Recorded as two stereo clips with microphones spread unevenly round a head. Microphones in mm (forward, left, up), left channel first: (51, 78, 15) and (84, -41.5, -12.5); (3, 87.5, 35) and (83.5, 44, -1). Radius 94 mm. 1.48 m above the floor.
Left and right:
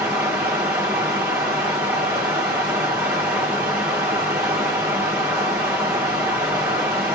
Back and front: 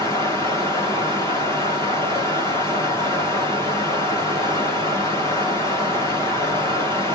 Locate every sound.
0.0 s running water: 155° right, 0.8 m